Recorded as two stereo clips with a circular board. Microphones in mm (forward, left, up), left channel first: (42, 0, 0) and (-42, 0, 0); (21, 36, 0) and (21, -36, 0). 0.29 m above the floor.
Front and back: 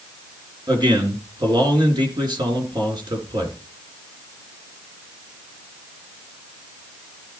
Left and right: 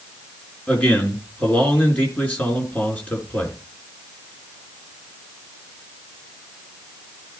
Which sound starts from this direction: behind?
A man speaking, at 0.7 s.